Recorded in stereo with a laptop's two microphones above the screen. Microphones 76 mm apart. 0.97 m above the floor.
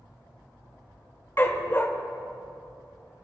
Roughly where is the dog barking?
Left.